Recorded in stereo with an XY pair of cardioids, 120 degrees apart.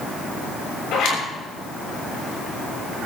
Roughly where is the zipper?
Ahead left.